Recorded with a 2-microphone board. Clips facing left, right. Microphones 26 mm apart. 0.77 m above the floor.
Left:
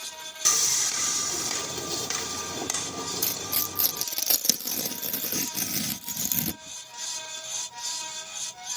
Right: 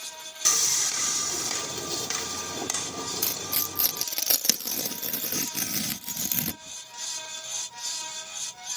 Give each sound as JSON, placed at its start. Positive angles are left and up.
{"t": 0.5, "sound": "sawing", "side_deg": 5}
{"t": 3.2, "sound": "tearing paper", "side_deg": -30}